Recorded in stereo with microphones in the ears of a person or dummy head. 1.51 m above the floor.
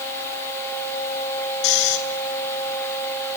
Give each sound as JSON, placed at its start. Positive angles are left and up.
{"t": 1.6, "sound": "snoring", "side_deg": 65, "distance_m": 2.5}